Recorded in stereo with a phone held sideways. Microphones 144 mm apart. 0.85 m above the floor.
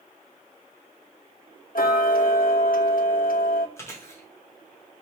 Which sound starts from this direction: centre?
Chewing, at 3.8 s.